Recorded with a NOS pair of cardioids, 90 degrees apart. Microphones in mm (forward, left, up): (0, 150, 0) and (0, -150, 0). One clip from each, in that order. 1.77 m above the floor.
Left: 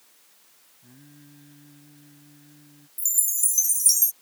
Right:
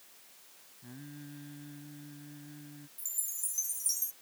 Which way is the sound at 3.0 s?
60° left.